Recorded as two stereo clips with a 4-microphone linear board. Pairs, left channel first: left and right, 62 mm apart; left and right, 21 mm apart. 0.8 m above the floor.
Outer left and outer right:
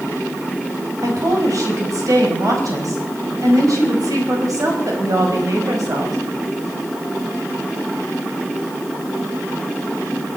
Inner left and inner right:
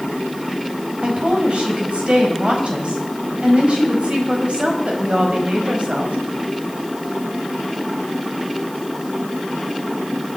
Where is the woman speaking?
65° right (ahead or behind), 4.5 m.